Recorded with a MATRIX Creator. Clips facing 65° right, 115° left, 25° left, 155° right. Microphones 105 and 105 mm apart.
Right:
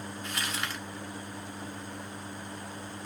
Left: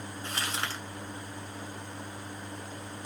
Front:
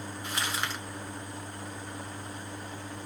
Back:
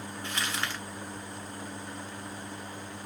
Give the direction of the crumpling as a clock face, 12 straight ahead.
9 o'clock.